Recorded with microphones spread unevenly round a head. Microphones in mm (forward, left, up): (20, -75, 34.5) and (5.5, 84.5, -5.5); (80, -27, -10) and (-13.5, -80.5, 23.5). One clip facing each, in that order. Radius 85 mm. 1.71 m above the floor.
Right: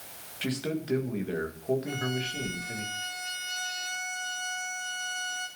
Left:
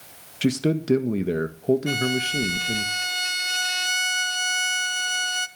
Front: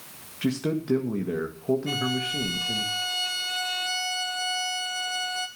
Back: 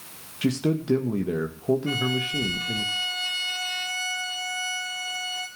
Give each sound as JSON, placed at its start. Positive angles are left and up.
{"t": 0.4, "sound": "a man speaking", "azimuth_deg": 140, "distance_m": 1.6}
{"t": 1.9, "sound": "a violin", "azimuth_deg": 105, "distance_m": 1.2}